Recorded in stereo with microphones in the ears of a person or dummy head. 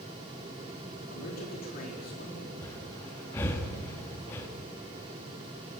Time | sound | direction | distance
1.1 | a man speaking | 45° left (ahead or behind) | 4.5 m
2.6 | breathing | 15° left (ahead or behind) | 1.3 m